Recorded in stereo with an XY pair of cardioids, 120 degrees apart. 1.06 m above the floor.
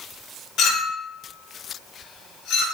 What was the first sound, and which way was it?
A clink, 60° left.